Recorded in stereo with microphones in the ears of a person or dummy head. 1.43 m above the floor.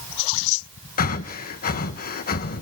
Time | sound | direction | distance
1.0 | breathing | 45° left (ahead or behind) | 1.1 m